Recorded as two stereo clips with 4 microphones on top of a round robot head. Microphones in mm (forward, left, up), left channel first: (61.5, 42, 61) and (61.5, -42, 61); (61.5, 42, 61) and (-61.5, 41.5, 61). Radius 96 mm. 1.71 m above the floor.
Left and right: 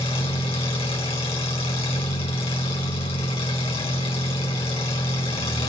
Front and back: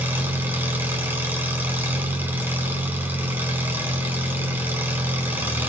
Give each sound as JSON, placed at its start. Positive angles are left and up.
{"t": 0.0, "sound": "an engine running", "azimuth_deg": 105, "distance_m": 5.5}